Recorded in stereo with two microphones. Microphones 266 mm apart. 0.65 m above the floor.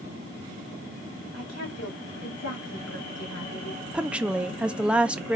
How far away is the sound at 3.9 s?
About 0.5 m.